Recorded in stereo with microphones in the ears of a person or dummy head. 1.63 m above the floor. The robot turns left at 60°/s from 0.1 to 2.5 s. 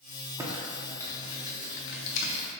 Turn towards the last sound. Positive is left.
turn(degrees=60)  # may be behind; listen again after turning